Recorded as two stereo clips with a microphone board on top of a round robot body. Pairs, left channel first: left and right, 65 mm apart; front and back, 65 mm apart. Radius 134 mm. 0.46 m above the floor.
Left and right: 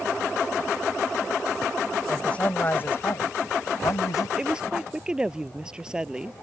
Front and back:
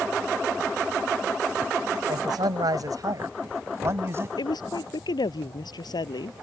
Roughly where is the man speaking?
Behind.